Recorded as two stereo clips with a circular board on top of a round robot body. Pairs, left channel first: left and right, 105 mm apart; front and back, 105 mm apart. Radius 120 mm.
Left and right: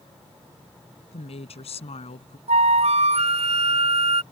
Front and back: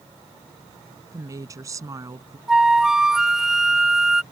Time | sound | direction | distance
1.1 | a woman speaking | 120° left | ?
2.5 | a flute | 95° right | ?